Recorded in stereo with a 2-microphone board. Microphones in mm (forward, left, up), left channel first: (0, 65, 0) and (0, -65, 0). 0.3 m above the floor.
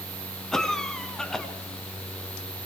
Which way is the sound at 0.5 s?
5° left (ahead or behind).